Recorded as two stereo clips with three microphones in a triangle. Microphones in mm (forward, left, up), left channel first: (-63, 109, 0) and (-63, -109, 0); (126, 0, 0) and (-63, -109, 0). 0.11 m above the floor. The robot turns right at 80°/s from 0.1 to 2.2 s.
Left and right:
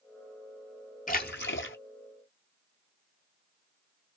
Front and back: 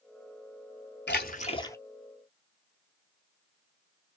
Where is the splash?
50° left, 0.6 m; by 1.8 s 105° left, 0.6 m.